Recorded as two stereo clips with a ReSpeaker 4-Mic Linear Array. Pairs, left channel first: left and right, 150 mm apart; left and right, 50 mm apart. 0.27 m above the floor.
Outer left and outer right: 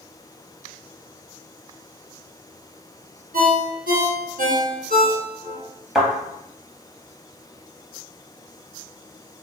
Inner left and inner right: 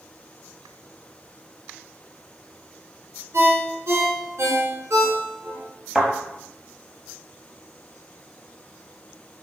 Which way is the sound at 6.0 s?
5° right (ahead or behind).